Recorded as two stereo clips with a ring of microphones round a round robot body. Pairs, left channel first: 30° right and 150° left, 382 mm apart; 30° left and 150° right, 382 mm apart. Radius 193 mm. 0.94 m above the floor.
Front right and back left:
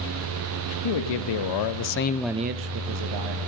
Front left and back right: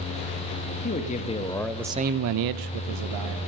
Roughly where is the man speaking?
Ahead right.